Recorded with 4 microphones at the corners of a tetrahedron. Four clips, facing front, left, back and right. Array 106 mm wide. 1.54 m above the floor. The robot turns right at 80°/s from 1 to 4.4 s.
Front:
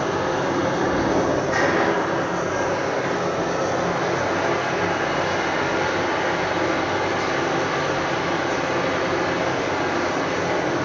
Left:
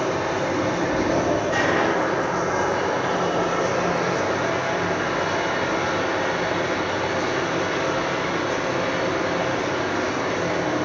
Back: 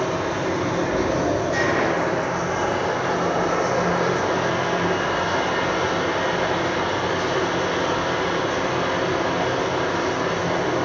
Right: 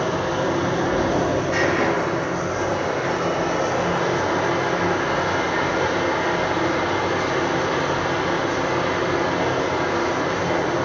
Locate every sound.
0.0 s running water: 35° right, 0.8 m; by 10.8 s 120° right, 0.8 m